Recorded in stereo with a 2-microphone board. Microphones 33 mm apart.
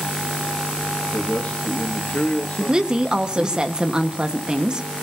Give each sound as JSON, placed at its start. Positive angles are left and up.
{"t": 1.1, "sound": "a man speaking", "side_deg": 65, "distance_m": 1.9}
{"t": 2.6, "sound": "a woman speaking", "side_deg": -30, "distance_m": 1.4}